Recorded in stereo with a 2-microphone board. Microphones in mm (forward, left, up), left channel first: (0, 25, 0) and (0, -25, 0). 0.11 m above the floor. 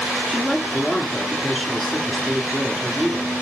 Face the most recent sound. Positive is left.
turn(degrees=5)  # may be behind; listen again after turning